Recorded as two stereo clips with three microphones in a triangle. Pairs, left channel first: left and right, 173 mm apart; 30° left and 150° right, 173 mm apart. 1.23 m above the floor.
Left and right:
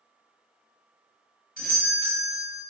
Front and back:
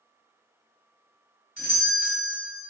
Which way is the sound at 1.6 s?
65° left.